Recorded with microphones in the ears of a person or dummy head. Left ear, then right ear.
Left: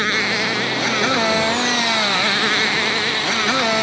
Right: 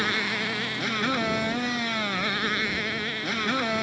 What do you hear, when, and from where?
0.0 s a motorcycle: 25° left (ahead or behind)